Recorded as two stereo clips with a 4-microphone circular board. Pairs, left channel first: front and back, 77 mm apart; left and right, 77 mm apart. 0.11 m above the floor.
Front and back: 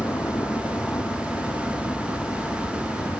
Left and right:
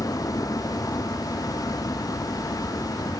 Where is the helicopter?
55° left.